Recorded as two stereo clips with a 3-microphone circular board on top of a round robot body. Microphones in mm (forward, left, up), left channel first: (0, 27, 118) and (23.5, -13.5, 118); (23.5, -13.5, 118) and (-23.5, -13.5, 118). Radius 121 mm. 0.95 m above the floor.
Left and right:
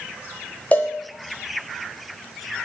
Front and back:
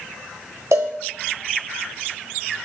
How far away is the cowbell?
About 0.7 m.